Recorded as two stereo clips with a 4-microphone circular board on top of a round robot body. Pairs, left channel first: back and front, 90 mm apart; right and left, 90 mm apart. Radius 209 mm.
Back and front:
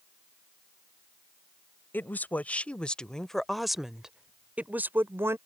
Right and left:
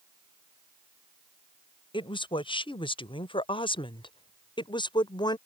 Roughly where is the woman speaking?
Right.